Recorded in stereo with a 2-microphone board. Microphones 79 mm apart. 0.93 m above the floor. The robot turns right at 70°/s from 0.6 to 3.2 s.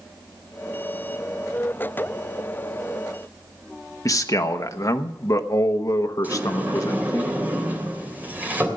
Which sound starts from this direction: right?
A sliding door, at 6.2 s.